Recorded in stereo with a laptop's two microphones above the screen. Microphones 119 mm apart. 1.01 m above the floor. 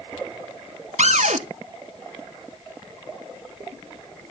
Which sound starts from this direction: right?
A cupboard door, at 1.0 s.